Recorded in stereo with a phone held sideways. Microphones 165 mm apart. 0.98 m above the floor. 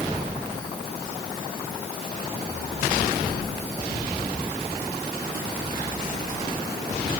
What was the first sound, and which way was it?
Only background noise.